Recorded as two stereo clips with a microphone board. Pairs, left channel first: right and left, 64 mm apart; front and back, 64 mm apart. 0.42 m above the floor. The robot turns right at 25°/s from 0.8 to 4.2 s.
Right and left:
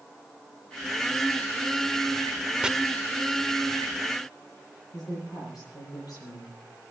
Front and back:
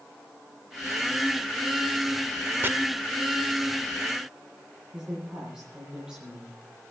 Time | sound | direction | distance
2.6 | chopping | 155° left | 0.8 m
4.9 | a woman speaking | 105° right | 9.5 m